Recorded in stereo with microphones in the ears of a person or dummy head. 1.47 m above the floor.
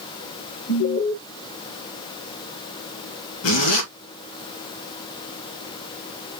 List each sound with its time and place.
0.7 s an alarm: 50° left (ahead or behind), 1.6 m
3.4 s a zipper: 80° left, 2 m